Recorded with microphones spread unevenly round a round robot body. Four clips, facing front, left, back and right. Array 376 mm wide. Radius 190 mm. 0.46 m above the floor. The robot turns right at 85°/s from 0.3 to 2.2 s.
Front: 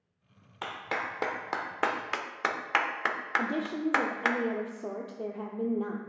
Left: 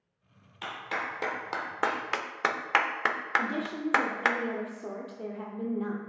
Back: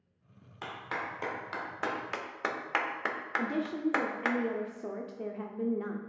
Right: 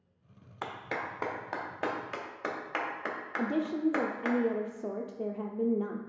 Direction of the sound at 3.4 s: 65° right.